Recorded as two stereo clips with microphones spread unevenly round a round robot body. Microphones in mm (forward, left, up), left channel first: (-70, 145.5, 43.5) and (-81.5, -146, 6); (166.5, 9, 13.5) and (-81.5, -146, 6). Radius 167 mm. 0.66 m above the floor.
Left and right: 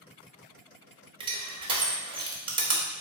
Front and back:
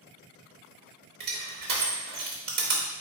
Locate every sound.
1.2 s crushing: 140° right, 1.1 m